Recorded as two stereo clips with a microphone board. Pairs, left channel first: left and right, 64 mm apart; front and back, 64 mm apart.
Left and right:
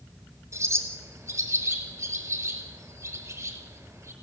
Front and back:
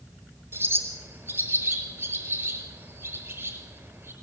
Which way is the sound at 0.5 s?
130° right.